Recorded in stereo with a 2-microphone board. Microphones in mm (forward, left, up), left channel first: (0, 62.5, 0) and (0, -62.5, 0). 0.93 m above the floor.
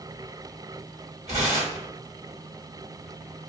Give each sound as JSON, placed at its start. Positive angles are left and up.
{"t": 1.3, "sound": "tearing paper", "side_deg": -65, "distance_m": 1.5}